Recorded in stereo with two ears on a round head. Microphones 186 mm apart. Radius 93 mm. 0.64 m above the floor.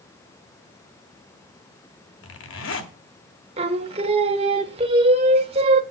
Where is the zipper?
70° left (ahead or behind), 1.8 m.